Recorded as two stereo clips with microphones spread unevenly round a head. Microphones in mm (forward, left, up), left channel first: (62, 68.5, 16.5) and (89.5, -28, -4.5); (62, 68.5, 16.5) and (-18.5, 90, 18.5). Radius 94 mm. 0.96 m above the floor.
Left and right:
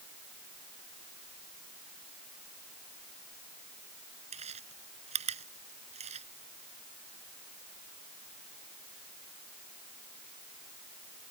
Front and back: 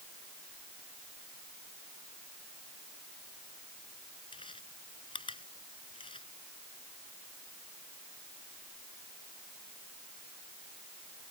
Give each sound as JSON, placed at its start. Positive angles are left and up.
{"t": 4.3, "sound": "chewing", "azimuth_deg": -75}